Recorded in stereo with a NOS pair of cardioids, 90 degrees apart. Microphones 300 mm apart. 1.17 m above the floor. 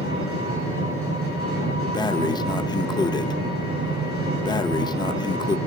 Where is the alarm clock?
No alarm clock in this recording.